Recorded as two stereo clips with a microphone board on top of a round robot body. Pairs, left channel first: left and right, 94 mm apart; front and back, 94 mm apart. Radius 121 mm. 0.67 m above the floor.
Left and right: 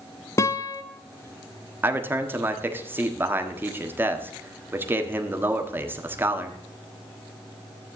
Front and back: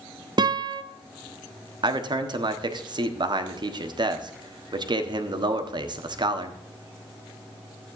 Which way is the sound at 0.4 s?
145° left.